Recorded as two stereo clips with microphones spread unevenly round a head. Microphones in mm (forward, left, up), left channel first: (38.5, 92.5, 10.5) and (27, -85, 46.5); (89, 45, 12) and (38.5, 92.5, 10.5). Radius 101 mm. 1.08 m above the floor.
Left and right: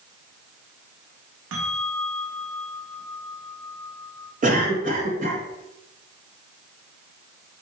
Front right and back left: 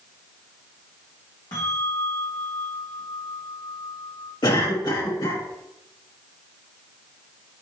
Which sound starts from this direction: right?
A bell, at 1.5 s.